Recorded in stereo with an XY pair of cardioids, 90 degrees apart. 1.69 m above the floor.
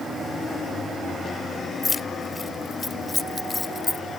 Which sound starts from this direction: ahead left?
Keys jangling, at 1.8 s.